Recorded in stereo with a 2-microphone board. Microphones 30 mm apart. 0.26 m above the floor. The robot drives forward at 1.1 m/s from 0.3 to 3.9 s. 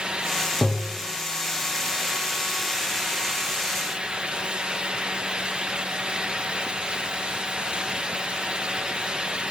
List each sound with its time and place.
0.6 s tapping: 15° left (ahead or behind), 2.5 m